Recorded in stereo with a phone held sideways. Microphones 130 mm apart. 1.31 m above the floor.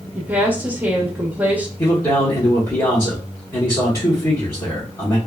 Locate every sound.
0.1 s a woman speaking: 10° right (ahead or behind), 0.8 m
1.8 s a man speaking: 25° left (ahead or behind), 1.1 m